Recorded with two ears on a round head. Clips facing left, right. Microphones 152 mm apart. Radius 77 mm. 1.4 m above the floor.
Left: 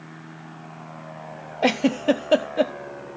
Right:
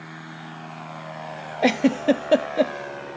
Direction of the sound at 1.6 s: 5° right (ahead or behind).